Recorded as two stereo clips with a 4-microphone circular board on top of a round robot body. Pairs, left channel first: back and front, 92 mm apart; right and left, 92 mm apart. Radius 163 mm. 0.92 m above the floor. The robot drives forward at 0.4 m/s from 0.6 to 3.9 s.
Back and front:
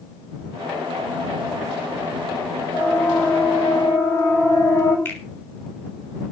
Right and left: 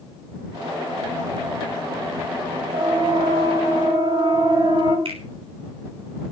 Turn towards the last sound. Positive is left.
turn(degrees=110)